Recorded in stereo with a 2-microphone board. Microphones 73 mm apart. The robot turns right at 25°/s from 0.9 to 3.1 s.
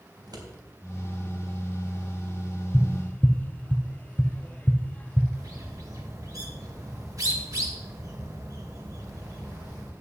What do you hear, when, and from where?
0.2 s scissors: 70° right (ahead or behind), 3.5 m
2.7 s tapping: 30° left (ahead or behind), 0.6 m; by 5.2 s 25° left (ahead or behind), 0.6 m
5.3 s a bird: 50° right (ahead or behind), 2.5 m